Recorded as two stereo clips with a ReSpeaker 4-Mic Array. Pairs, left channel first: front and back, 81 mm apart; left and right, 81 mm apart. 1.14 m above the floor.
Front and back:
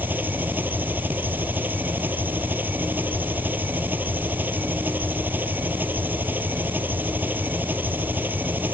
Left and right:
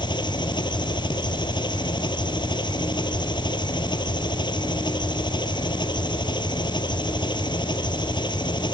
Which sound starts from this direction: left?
An engine running, at 0.0 s.